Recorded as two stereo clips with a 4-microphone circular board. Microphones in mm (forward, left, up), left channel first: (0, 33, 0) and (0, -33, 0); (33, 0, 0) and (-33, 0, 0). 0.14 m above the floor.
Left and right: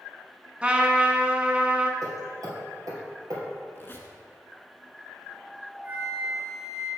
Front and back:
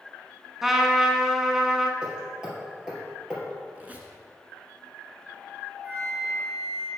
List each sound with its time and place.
0.6 s a trumpet: 100° right, 0.8 m
2.0 s hammering: 105° right, 2.5 m
3.8 s a squeak: 125° left, 1.1 m
5.8 s a flute: 130° right, 2.5 m